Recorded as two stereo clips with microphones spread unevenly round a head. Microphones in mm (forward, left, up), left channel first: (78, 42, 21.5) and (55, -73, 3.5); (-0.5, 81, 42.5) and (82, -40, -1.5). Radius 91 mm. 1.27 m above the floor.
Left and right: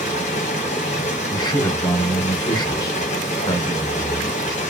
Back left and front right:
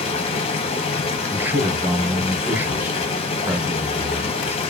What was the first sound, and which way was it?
Running water, 90° left.